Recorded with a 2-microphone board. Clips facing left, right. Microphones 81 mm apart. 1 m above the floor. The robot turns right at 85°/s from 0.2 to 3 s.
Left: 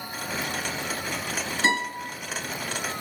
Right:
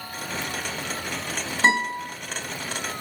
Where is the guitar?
45° right, 1.6 m; by 2.1 s 10° right, 1.6 m.